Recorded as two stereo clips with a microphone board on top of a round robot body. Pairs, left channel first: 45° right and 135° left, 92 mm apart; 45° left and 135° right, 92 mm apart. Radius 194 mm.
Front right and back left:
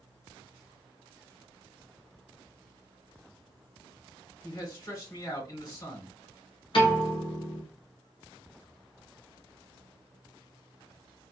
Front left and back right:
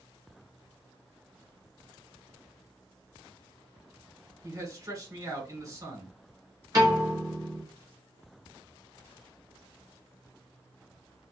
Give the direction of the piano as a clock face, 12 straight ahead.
3 o'clock.